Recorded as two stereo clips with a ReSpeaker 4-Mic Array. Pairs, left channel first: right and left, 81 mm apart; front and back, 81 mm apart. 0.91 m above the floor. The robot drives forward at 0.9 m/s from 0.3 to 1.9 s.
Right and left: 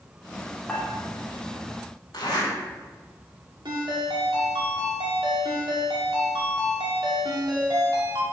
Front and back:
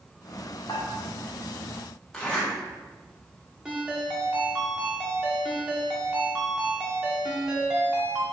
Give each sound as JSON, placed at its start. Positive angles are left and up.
{"t": 0.7, "sound": "dishes clattering", "azimuth_deg": -15, "distance_m": 1.5}
{"t": 2.1, "sound": "a zipper", "azimuth_deg": -75, "distance_m": 2.0}
{"t": 3.6, "sound": "a ringtone", "azimuth_deg": 100, "distance_m": 1.8}